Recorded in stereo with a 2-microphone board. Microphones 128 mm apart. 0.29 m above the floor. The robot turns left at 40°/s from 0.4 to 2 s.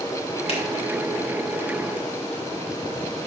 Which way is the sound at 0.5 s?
50° left (ahead or behind).